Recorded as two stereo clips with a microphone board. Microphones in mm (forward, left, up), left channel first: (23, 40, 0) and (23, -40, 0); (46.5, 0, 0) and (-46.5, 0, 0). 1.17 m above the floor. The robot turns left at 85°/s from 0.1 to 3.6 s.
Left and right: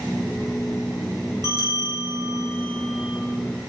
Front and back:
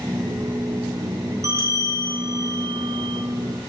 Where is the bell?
130° left, 0.5 m; by 3.2 s 20° right, 0.5 m.